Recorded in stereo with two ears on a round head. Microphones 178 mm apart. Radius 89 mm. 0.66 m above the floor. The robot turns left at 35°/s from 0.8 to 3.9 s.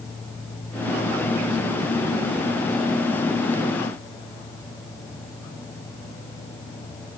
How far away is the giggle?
No giggle in this recording.